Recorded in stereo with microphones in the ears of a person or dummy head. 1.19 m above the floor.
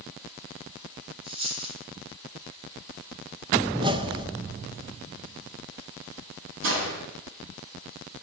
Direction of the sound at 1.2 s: 30° right (ahead or behind).